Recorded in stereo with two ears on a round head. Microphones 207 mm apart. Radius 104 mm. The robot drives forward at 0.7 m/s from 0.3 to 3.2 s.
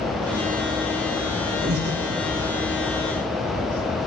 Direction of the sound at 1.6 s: 45° right (ahead or behind).